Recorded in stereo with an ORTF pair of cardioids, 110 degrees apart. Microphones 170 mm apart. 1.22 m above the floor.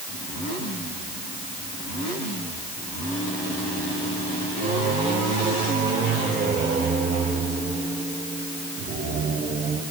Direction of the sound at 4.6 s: 50° right.